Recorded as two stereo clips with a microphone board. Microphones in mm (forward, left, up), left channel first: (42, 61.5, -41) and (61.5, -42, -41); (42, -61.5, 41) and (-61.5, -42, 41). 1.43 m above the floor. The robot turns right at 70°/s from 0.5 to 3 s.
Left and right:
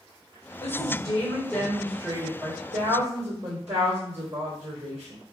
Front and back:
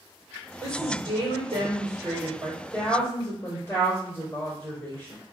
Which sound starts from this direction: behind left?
A woman speaking, at 0.6 s.